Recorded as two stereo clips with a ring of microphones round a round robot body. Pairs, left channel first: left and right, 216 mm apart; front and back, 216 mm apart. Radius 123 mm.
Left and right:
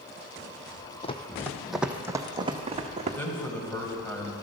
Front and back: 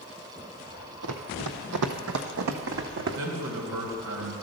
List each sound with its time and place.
1.0 s running footsteps: 150° left, 0.9 m; by 3.2 s 150° right, 1.7 m
3.2 s a man speaking: 170° left, 2.5 m